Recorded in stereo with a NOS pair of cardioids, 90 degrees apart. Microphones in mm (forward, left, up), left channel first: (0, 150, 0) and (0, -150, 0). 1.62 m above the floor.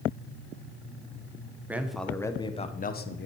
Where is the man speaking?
5° right, 1.1 m; by 3.3 s 45° left, 1.0 m.